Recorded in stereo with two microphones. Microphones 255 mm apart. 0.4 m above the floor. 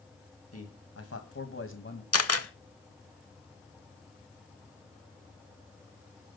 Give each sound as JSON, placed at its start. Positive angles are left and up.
{"t": 0.5, "sound": "a man speaking", "side_deg": 70, "distance_m": 2.5}
{"t": 2.1, "sound": "a camera shutter", "side_deg": 65, "distance_m": 1.0}